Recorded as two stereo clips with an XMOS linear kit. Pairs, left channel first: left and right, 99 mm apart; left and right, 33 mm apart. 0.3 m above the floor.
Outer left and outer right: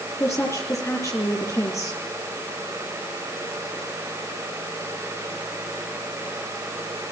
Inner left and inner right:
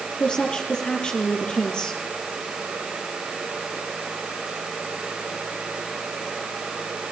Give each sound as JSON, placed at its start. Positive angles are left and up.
{"t": 0.2, "sound": "a woman speaking", "side_deg": 30, "distance_m": 6.0}